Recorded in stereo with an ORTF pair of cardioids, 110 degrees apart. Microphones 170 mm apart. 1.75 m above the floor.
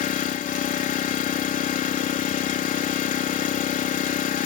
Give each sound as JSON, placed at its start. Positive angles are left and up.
{"t": 0.0, "sound": "an engine running", "azimuth_deg": 50}